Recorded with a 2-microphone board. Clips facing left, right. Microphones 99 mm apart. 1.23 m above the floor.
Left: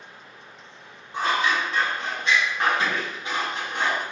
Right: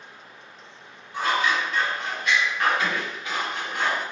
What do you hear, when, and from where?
1.1 s scissors: 30° left (ahead or behind), 1.3 m